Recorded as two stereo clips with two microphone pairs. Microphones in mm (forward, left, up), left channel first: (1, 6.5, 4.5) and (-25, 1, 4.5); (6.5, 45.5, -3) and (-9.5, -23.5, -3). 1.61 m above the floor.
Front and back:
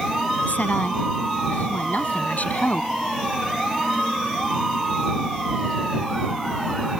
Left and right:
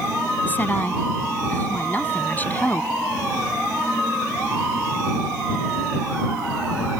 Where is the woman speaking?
15° left.